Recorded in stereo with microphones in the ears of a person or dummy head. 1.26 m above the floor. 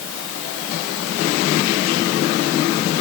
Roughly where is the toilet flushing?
I don't hear a toilet flushing.